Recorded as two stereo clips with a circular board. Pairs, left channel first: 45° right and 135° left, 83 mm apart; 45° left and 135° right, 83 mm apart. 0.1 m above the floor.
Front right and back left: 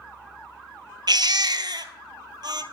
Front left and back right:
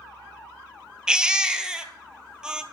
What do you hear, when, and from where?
1.1 s a baby crying: 145° left, 0.8 m